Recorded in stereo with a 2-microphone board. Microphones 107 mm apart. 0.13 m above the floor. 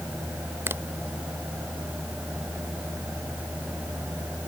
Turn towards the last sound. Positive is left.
turn(degrees=-20)  # may be behind; listen again after turning